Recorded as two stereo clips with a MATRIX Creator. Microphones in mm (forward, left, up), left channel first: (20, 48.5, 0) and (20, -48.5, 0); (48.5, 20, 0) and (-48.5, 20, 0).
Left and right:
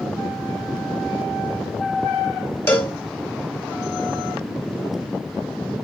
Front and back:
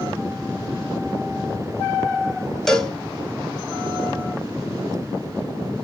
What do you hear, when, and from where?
2.7 s a cowbell: 80° left, 1.1 m